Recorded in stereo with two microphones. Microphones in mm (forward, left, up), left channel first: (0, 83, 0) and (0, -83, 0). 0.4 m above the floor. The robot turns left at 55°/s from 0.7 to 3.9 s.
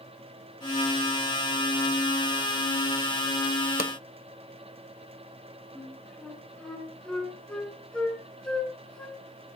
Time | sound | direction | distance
3.8 | a pop | 65° left (ahead or behind) | 0.9 m
5.8 | a flute | 5° left (ahead or behind) | 4.5 m